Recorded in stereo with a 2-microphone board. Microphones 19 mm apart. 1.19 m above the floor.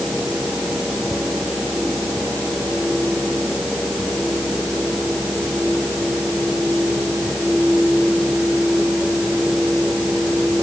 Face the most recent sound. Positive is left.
No sound to turn to.